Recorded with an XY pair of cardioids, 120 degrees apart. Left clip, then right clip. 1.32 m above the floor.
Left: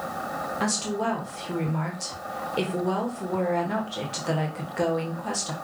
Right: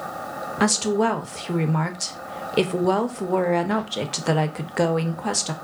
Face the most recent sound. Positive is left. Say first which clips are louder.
# right 8 dB
turn(degrees=-45)